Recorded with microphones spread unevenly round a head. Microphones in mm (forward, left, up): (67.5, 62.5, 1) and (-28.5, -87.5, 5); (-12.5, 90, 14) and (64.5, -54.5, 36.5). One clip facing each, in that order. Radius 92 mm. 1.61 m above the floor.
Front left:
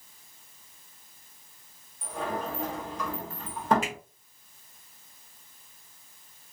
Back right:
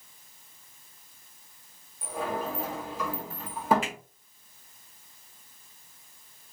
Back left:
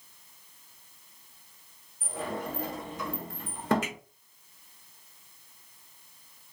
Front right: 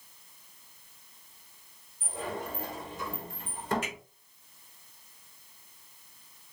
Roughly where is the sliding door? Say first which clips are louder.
Back right 1 dB, back left 2 dB; behind left.